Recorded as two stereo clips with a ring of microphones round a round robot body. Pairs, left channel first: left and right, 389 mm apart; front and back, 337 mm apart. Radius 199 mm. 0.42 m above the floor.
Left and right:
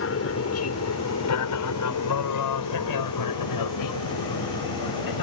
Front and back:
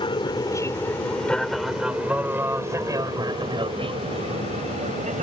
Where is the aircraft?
65° left; by 5.2 s 115° left.